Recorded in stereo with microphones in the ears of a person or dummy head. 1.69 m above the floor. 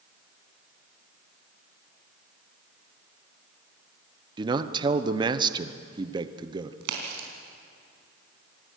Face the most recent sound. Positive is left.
turn(degrees=-70)  # may be behind; listen again after turning